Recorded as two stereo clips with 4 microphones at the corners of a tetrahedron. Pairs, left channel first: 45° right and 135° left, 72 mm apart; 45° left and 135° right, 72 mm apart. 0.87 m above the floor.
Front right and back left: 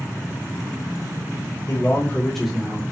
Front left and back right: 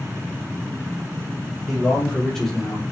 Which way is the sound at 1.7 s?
45° right.